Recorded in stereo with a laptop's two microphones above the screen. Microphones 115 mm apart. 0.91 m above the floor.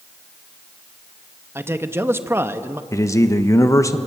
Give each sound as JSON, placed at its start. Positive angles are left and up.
{"t": 1.6, "sound": "a man speaking", "side_deg": -20, "distance_m": 0.7}
{"t": 2.9, "sound": "a man speaking", "side_deg": 25, "distance_m": 1.0}